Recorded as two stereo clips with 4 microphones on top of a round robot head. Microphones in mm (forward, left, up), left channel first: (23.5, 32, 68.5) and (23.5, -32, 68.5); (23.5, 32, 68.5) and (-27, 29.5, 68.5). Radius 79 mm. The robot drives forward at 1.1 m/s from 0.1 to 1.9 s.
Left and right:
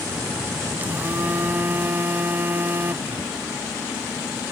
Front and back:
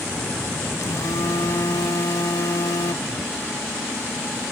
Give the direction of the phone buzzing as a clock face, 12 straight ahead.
1 o'clock.